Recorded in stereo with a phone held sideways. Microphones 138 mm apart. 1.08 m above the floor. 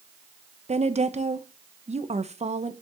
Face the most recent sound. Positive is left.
turn(degrees=-55)  # may be behind; listen again after turning